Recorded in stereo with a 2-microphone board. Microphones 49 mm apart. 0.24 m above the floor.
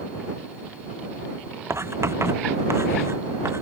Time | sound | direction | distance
1.7 | writing | 60° right (ahead or behind) | ?